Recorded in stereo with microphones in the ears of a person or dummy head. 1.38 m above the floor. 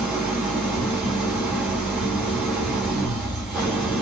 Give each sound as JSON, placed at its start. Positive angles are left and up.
{"t": 0.0, "sound": "an engine running", "side_deg": -5, "distance_m": 1.2}